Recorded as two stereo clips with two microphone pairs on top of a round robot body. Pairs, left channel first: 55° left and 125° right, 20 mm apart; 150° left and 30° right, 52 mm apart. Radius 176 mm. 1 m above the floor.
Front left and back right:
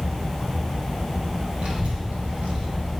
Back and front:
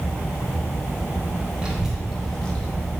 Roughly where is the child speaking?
Right.